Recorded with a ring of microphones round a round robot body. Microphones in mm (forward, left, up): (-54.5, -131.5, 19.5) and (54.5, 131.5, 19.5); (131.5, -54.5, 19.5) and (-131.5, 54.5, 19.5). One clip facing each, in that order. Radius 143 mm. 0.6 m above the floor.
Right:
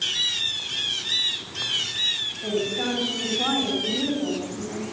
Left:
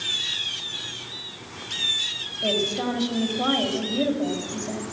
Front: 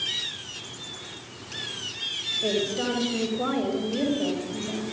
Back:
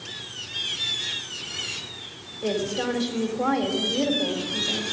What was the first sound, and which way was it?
A woman speaking, 70° left.